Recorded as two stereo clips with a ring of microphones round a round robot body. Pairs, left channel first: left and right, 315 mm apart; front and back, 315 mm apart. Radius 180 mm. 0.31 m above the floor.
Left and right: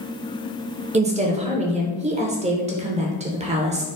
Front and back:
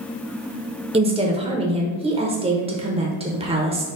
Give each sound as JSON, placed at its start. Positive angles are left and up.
{"t": 0.9, "sound": "a woman speaking", "azimuth_deg": -130, "distance_m": 0.9}